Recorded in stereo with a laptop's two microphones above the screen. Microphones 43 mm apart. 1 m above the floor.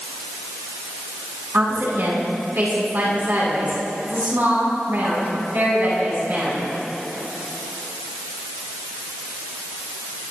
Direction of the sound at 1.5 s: 60° right (ahead or behind).